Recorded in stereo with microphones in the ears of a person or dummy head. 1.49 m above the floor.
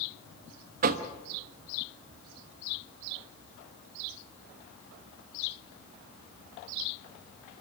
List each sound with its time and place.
0.8 s knocking: 45° right (ahead or behind), 1.2 m